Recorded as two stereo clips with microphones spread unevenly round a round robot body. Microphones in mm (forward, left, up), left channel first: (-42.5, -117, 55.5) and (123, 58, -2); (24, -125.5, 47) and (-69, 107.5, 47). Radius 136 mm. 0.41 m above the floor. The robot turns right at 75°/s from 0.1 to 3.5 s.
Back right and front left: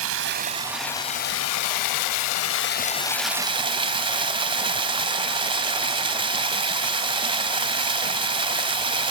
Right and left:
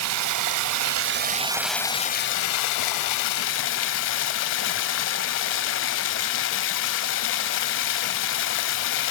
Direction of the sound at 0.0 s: 80° left.